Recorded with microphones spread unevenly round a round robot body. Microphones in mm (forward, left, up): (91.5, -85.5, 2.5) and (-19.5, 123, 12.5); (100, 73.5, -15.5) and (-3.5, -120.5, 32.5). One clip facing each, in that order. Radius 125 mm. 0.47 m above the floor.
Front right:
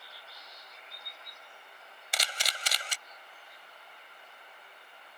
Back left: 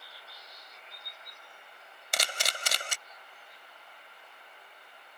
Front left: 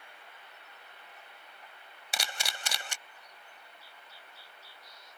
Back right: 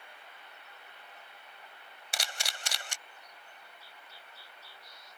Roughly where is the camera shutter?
Left.